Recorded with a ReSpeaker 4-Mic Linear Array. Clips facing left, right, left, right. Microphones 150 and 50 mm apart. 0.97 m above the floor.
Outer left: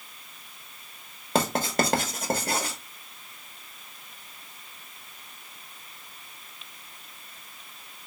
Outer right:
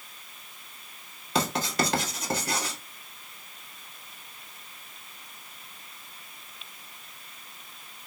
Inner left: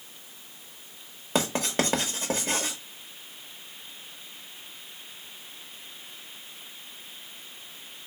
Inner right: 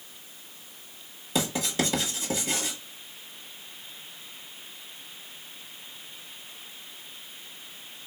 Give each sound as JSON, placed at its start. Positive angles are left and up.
{"t": 1.4, "sound": "writing", "side_deg": 50, "distance_m": 1.3}